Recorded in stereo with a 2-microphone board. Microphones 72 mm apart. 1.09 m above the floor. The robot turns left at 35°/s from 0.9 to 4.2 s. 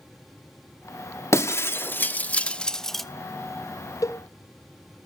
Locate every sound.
1.3 s breaking glass: 40° left (ahead or behind), 0.7 m; by 3.0 s centre (ahead or behind), 0.7 m
4.0 s a cowbell: 45° left (ahead or behind), 0.7 m; by 4.2 s 40° left (ahead or behind), 0.7 m